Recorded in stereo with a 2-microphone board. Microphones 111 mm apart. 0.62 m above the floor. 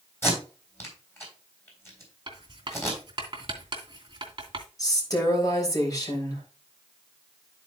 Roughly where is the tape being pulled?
Left.